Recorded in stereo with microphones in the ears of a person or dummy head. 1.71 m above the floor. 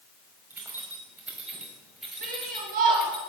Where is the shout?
45° right (ahead or behind), 4.5 m.